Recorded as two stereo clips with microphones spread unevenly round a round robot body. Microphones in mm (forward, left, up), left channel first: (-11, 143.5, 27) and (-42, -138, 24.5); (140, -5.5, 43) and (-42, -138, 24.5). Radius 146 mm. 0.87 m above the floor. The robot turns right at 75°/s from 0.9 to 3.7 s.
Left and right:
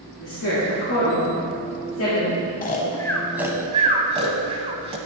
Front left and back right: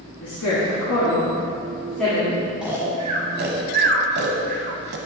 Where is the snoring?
125° left, 0.8 m; by 5.0 s 155° right, 0.8 m.